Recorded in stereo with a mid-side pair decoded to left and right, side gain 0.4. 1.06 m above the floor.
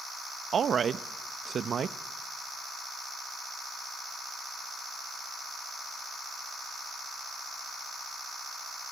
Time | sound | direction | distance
0.5 | a woman speaking | 55° right | 0.7 m